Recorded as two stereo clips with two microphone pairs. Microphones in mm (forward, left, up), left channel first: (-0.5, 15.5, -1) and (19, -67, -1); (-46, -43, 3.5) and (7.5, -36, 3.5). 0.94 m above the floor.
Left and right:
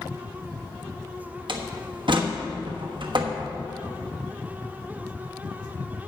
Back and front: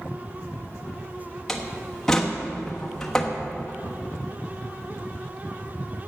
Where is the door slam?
90° right, 1.1 m.